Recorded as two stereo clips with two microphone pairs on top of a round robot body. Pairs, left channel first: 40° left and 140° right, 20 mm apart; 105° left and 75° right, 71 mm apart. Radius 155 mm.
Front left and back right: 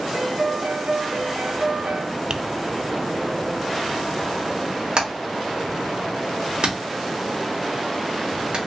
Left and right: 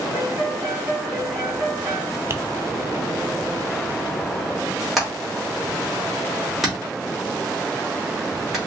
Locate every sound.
0.1 s a piano: 145° right, 2.5 m
2.3 s tapping: 115° right, 0.7 m
5.0 s hammering: 160° right, 2.5 m